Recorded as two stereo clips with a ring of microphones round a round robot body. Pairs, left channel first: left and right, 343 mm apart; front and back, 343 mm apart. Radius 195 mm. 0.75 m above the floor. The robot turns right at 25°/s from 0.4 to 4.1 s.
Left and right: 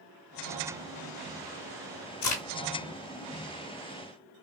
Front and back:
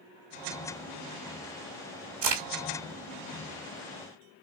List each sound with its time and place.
2.2 s a crack: 160° left, 2 m; by 2.4 s 165° left, 2 m